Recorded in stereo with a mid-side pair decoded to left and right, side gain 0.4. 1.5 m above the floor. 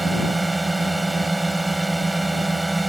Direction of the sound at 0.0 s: 15° right.